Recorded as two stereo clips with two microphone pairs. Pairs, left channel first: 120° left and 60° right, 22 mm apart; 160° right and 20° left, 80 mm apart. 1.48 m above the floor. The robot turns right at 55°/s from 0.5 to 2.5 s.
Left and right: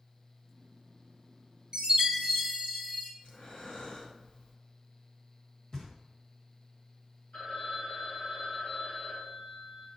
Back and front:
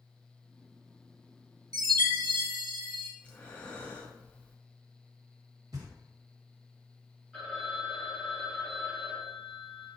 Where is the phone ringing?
125° left, 2 m.